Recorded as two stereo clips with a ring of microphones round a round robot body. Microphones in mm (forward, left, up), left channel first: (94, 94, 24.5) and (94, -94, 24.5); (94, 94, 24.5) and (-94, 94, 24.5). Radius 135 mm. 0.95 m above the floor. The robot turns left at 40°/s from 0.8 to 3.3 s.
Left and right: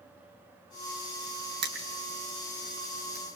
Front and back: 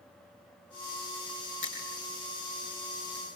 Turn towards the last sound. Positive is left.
turn(degrees=-130)